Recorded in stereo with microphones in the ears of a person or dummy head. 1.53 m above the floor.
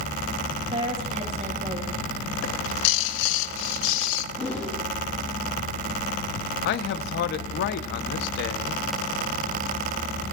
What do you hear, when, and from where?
0.7 s a woman speaking: 35° right (ahead or behind), 2 m
2.4 s a bird: 70° left (ahead or behind), 0.6 m
4.3 s a whoosh: 10° left (ahead or behind), 2.5 m
6.6 s a man speaking: 60° left (ahead or behind), 0.8 m